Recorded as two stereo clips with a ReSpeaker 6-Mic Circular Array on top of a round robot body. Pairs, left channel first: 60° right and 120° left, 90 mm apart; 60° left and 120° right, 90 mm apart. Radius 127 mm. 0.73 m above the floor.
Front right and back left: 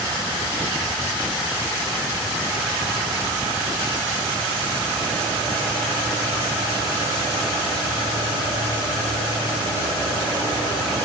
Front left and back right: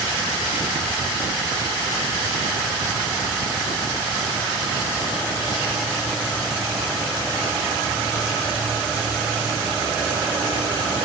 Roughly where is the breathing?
No breathing in this recording.